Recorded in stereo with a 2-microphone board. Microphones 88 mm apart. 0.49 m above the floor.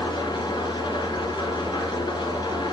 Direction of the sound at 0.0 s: 50° left (ahead or behind).